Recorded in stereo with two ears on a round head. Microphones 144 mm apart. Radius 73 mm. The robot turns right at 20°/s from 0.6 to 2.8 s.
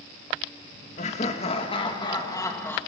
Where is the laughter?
130° left, 1.6 m; by 2.8 s 165° left, 1.6 m.